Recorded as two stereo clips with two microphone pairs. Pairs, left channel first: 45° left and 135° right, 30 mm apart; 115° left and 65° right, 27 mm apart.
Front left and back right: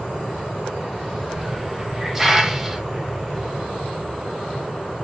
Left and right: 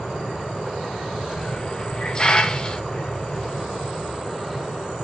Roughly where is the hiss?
Behind left.